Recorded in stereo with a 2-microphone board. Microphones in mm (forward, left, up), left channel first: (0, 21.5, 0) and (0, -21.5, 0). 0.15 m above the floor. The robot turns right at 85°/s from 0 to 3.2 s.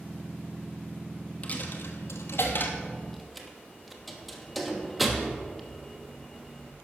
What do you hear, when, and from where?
1.4 s a dropped coin: 30° left (ahead or behind), 1.1 m; by 6.7 s centre (ahead or behind), 1.1 m